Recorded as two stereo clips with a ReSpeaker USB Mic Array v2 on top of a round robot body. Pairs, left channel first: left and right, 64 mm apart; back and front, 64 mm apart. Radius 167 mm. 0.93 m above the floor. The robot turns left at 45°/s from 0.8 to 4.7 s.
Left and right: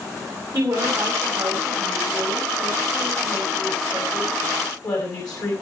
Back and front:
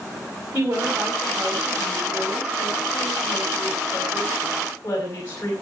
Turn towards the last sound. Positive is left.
turn(degrees=120)